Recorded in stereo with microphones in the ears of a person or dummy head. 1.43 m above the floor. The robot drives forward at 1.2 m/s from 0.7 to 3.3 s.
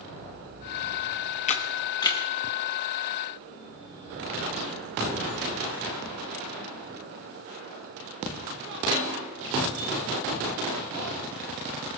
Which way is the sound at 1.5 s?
35° left (ahead or behind).